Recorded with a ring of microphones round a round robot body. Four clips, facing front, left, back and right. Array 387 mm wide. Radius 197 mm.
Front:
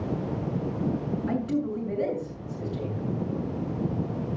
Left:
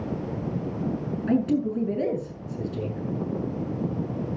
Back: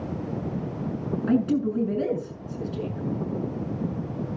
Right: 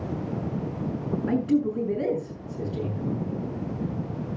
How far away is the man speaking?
About 6.5 m.